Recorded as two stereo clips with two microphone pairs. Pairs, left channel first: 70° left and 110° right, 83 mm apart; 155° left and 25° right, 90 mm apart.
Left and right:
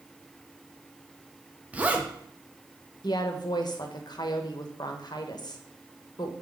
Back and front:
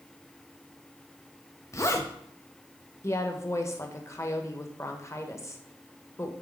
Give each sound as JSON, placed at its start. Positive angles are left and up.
{"t": 1.7, "sound": "a zipper", "azimuth_deg": -170, "distance_m": 0.9}
{"t": 3.0, "sound": "a woman speaking", "azimuth_deg": 100, "distance_m": 1.0}